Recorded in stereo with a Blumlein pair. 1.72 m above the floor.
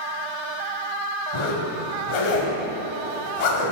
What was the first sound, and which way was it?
A zipper, 50° left.